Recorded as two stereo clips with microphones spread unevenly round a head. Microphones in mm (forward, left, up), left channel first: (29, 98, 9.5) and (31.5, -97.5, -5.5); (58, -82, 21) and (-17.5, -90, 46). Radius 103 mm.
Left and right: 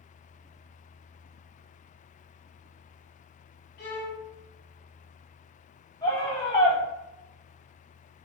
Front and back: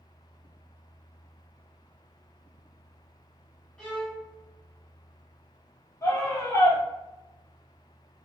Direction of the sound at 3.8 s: 70° left.